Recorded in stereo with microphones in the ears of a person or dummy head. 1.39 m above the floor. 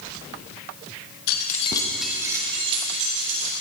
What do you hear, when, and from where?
1.3 s keys jangling: 55° left (ahead or behind), 1.3 m; by 3.5 s 50° right (ahead or behind), 3 m